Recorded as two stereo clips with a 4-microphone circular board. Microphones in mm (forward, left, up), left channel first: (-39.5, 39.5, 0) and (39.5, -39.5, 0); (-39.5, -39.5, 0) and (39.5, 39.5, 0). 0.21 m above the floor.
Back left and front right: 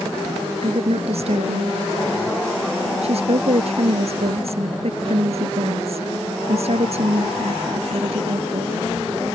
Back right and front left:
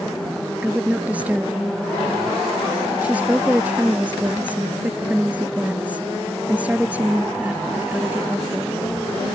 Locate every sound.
0.6 s a woman speaking: 30° right